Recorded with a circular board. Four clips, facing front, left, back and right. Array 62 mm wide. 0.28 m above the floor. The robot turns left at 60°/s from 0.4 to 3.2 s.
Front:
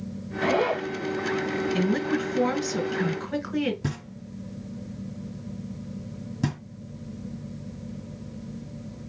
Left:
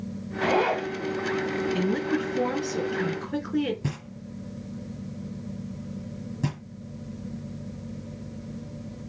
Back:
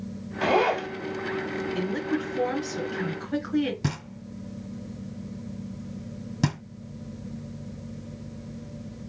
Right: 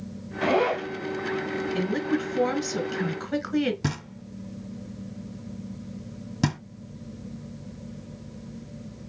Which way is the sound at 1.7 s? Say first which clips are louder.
Right 2 dB, front 3 dB; 10° left.